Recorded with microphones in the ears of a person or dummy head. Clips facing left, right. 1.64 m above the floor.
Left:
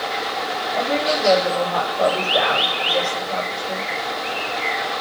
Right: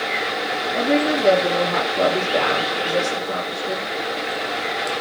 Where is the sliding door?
I don't hear a sliding door.